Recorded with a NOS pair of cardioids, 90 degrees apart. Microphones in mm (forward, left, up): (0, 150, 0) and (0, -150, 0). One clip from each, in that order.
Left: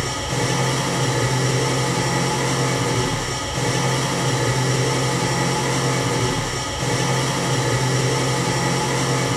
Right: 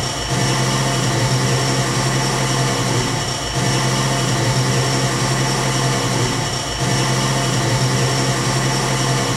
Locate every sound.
0.0 s an engine running: 25° right, 0.8 m